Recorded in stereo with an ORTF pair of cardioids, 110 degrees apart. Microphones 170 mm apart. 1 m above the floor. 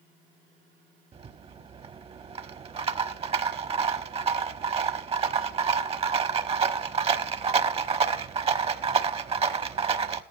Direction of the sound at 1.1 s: 35° right.